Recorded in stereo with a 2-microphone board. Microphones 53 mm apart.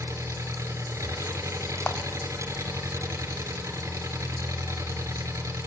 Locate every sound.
0.0 s an engine running: 80° right, 3.5 m
1.9 s a clap: 30° left (ahead or behind), 1.4 m